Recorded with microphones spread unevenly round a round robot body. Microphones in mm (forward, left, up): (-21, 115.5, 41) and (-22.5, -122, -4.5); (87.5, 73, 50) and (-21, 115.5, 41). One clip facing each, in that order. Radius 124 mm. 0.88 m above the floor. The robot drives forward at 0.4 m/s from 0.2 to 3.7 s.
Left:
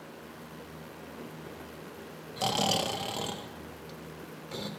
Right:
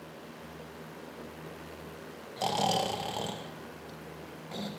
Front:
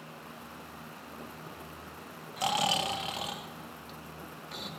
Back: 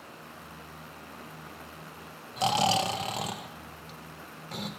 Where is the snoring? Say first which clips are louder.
Even, back 4 dB; 165° left, 0.8 m; by 4.7 s 175° left, 1.2 m.